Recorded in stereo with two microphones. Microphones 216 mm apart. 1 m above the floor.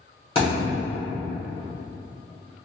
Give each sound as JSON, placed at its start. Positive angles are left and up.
{"t": 0.3, "sound": "a thud", "side_deg": 25, "distance_m": 1.5}